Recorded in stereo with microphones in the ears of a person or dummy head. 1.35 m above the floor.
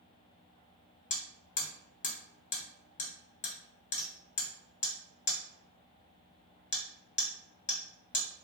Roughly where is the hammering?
Left.